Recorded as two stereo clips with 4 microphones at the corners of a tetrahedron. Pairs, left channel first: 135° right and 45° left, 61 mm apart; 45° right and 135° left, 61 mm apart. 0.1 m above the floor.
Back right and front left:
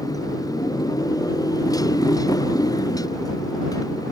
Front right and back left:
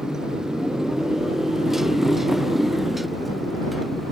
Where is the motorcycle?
145° right; by 4.1 s 135° right.